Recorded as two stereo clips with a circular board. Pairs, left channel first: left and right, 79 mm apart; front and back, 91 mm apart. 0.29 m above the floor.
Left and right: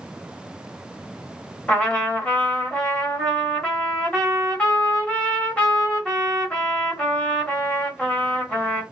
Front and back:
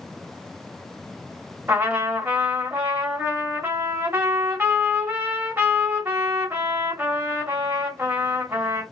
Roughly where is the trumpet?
Behind left.